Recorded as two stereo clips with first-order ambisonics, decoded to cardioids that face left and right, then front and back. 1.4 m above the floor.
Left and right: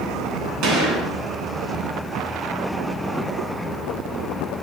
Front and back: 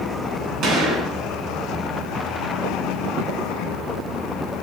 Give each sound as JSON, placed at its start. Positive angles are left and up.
{"t": 0.6, "sound": "a gunshot", "azimuth_deg": -120, "distance_m": 3.0}